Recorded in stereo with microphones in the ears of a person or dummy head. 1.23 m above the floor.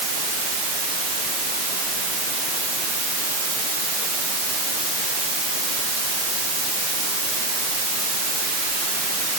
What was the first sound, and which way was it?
Only background noise.